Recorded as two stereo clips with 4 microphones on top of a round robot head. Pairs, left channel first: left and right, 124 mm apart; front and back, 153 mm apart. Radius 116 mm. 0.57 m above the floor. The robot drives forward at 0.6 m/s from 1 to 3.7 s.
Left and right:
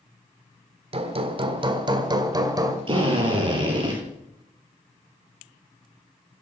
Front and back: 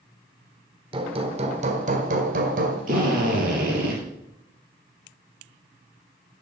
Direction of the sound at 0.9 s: 125° right.